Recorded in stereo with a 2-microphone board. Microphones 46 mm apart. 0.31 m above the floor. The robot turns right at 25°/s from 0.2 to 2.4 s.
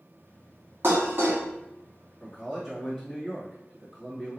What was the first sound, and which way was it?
Dishes clattering, 65° right (ahead or behind).